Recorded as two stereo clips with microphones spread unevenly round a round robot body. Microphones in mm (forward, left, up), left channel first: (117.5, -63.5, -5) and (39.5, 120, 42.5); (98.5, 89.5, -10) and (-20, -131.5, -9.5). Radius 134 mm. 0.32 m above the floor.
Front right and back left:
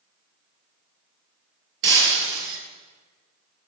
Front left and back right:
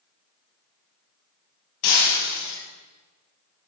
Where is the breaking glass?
90° left, 3 m.